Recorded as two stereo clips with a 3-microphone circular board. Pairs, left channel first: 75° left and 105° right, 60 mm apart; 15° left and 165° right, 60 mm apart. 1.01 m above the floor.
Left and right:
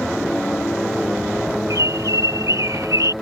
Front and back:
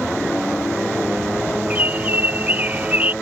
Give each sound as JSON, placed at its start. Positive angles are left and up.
{"t": 1.7, "sound": "a bird", "azimuth_deg": -105}